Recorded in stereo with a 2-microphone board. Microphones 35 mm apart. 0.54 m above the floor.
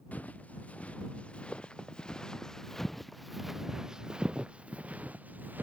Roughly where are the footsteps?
Left.